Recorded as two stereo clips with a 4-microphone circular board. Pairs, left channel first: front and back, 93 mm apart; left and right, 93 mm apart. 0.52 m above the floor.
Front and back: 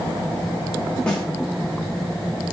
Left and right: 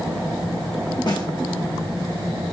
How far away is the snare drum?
About 1.2 m.